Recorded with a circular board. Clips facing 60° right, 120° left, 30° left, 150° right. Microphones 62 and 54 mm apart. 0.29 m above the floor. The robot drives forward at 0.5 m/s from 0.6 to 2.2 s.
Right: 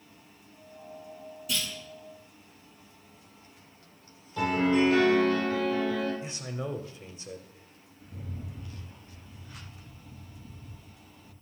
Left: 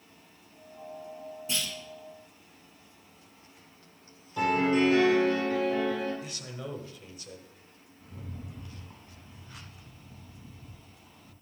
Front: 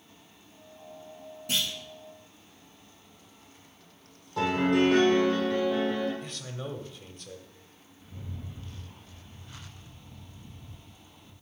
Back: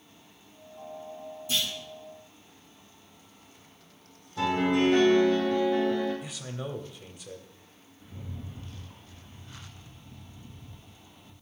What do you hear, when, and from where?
1.5 s a clunk: 55° left, 4 m; by 1.7 s 60° left, 4 m
4.4 s a piano: 45° left, 4.5 m
6.2 s a man speaking: 80° right, 0.9 m
8.0 s a rattle: 120° left, 3 m